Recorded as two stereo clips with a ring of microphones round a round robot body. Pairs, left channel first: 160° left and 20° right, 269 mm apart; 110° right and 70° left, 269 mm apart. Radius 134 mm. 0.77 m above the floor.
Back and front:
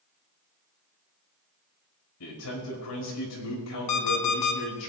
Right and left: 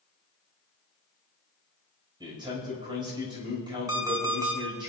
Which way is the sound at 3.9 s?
145° left.